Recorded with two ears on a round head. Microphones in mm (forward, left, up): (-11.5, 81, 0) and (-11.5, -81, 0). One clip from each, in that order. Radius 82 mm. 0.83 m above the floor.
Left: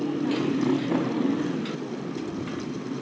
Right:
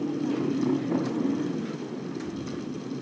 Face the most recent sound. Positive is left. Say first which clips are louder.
# left 2 dB
turn(degrees=85)